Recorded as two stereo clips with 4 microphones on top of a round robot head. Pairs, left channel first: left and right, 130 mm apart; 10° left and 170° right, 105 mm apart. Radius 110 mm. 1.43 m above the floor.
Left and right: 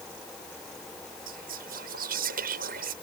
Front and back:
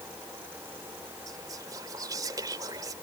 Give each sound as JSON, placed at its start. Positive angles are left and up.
{"t": 1.3, "sound": "whispering", "azimuth_deg": -105}